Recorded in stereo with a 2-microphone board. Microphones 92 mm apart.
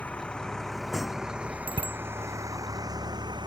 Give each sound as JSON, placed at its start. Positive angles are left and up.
{"t": 0.0, "sound": "a vehicle", "side_deg": 15}
{"t": 1.7, "sound": "a bicycle bell", "side_deg": -65}